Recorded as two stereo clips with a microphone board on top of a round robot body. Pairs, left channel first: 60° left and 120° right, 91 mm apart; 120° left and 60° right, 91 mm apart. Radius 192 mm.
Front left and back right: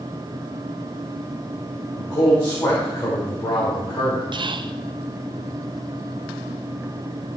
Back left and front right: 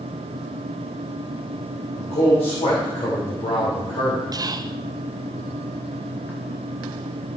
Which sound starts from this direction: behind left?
A man speaking, at 2.0 s.